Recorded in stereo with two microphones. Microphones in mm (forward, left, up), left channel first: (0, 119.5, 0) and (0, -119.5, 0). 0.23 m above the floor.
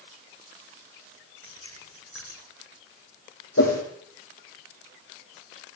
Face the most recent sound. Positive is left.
turn(degrees=85)